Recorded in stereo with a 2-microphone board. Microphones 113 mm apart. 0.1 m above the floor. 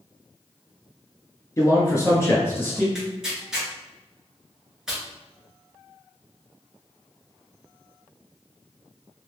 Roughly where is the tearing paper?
Centre.